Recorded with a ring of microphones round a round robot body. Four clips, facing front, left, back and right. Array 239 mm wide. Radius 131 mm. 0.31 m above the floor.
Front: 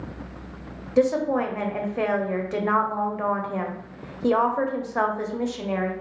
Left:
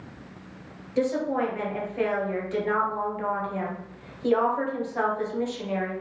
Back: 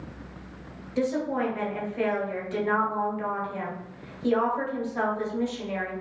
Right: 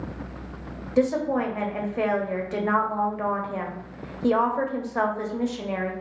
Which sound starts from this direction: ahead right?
A woman speaking, at 1.0 s.